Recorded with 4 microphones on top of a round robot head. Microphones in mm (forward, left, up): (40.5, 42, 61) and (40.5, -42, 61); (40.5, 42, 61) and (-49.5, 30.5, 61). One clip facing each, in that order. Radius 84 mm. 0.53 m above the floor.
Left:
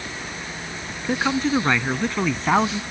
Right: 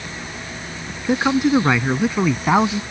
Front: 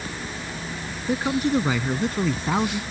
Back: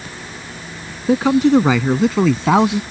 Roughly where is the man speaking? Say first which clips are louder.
Right 5 dB, back 10 dB; behind.